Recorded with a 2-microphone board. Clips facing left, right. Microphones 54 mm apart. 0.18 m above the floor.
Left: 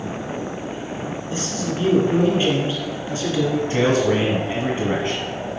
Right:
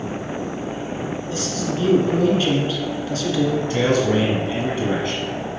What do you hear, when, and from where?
1.3 s a man speaking: 20° left (ahead or behind), 2.5 m
3.7 s a man speaking: 30° left (ahead or behind), 1.6 m